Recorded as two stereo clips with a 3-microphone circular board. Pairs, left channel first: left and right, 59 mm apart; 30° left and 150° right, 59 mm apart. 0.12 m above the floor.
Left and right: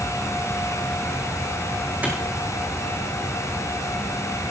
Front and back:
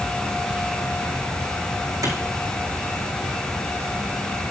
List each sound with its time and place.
2.0 s a clap: 150° right, 4.5 m